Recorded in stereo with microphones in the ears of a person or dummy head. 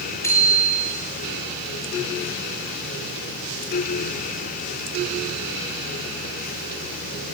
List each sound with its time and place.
0.2 s a bicycle bell: 15° left (ahead or behind), 4.5 m